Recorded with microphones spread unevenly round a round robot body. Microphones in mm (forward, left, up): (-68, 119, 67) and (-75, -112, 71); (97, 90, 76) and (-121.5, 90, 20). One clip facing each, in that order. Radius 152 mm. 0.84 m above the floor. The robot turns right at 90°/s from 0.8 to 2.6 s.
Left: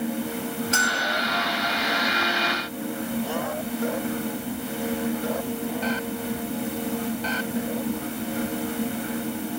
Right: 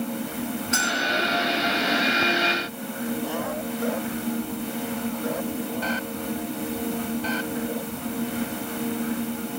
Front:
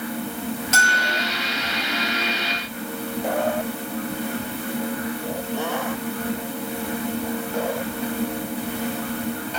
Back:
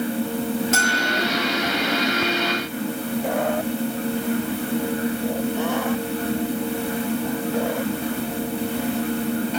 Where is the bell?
25° left, 7 m; by 1.3 s 65° left, 7 m.